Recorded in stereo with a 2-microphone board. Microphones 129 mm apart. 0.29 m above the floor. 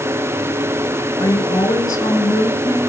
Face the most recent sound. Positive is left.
turn(degrees=30)  # may be behind; listen again after turning